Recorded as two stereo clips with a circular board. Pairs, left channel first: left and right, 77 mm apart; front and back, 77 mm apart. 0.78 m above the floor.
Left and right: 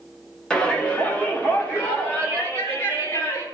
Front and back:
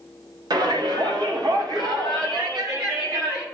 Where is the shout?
165° left, 1.3 m; by 3.4 s 150° left, 3.5 m.